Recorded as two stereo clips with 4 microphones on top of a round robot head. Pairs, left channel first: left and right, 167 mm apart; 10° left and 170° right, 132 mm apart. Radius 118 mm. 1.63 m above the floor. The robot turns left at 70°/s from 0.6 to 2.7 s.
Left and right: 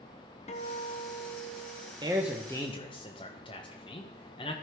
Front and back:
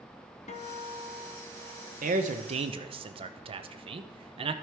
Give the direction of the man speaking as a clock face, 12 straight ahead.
5 o'clock.